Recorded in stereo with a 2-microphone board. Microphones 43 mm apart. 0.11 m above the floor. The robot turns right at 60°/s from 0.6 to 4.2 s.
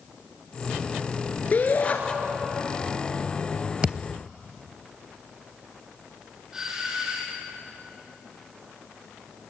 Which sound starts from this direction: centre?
A doorbell, at 6.5 s.